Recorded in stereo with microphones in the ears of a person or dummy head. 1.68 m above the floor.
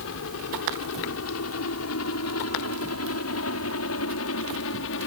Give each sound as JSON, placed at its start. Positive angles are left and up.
{"t": 0.0, "sound": "a helicopter", "side_deg": 70}